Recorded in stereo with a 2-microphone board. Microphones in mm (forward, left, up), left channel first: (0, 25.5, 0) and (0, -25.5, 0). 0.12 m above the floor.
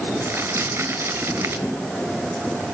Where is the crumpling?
50° right (ahead or behind), 1.6 m.